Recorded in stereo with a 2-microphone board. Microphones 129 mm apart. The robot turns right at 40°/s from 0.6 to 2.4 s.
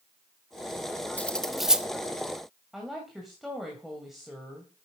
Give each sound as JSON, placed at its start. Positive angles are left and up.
{"t": 1.2, "sound": "cutlery clinking", "side_deg": 10, "distance_m": 0.5}
{"t": 2.7, "sound": "a woman speaking", "side_deg": -5, "distance_m": 2.0}